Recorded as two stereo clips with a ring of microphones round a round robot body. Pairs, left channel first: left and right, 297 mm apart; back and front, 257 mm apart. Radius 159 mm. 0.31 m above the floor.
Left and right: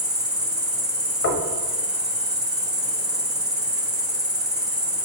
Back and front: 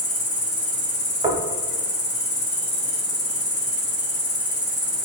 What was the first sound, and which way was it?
An insect, 175° right.